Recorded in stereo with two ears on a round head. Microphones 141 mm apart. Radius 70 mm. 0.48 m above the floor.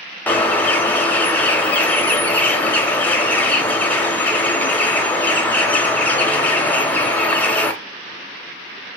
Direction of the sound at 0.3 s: 10° left (ahead or behind).